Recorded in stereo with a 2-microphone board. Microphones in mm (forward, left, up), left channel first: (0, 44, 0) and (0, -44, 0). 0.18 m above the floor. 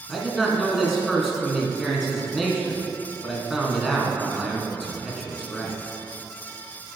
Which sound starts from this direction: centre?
A man speaking, at 0.1 s.